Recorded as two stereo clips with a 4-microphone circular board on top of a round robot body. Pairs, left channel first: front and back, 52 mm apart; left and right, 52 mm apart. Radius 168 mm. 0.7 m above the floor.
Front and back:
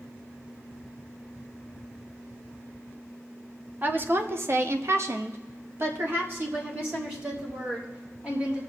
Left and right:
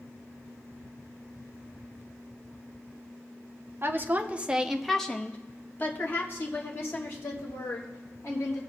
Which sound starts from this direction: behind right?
A woman speaking, at 3.8 s.